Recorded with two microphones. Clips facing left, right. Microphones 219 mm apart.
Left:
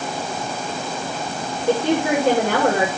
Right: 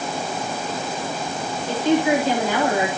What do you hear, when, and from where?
1.7 s a woman speaking: 65° left (ahead or behind), 8 m